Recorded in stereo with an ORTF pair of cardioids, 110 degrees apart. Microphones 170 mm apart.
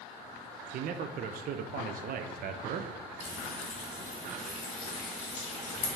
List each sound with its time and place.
0.7 s a man speaking: 60° right, 0.5 m
3.2 s frying: 45° left, 2.5 m